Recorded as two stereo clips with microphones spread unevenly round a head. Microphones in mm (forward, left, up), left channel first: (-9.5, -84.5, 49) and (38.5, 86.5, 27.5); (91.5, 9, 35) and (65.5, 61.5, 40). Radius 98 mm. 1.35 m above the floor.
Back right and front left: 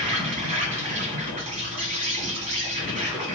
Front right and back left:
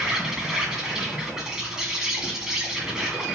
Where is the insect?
35° left, 1.9 m.